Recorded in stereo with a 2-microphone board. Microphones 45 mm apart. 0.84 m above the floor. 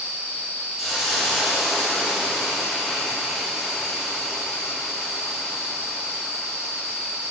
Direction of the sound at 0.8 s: 5° right (ahead or behind).